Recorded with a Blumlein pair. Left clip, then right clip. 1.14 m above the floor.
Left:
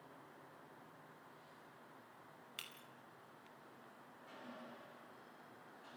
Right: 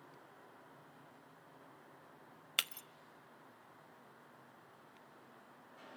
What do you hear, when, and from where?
2.6 s breaking glass: 55° right, 0.7 m